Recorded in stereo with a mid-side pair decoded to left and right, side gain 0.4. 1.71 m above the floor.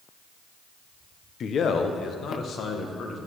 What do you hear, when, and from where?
1.4 s a man speaking: 60° left, 0.9 m; by 3.2 s 65° left, 2 m